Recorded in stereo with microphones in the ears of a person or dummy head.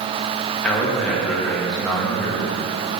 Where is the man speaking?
5° left (ahead or behind), 2.5 m.